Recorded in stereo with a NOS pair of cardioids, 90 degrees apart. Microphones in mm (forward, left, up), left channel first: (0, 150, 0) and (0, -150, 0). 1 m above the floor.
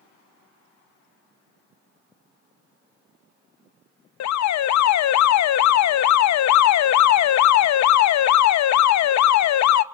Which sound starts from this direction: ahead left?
An alarm, at 4.2 s.